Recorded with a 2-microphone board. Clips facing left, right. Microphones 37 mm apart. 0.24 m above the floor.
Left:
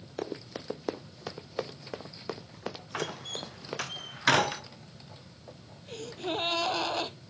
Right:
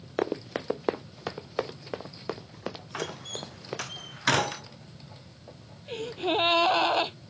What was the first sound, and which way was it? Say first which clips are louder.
Running footsteps: right 8 dB; 45° right (ahead or behind).